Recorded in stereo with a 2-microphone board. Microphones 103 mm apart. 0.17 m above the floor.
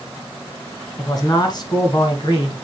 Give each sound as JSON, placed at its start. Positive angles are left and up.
{"t": 1.0, "sound": "a man speaking", "side_deg": 35, "distance_m": 1.7}